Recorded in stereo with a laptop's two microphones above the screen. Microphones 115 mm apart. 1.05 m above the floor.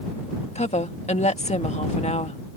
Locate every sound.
0.6 s a woman speaking: 75° left (ahead or behind)